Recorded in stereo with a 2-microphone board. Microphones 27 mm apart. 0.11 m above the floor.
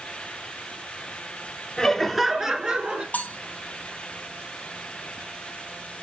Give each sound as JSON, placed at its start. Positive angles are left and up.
{"t": 1.8, "sound": "laughter", "side_deg": 20, "distance_m": 1.2}
{"t": 3.1, "sound": "cutlery clinking", "side_deg": 70, "distance_m": 1.8}